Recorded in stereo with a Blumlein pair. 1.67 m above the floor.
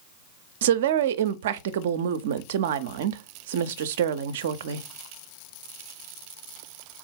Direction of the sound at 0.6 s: 55° right.